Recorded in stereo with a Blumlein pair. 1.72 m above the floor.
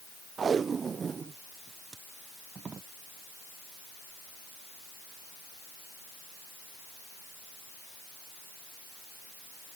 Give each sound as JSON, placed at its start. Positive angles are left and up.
{"t": 0.4, "sound": "tape being pulled", "azimuth_deg": -20}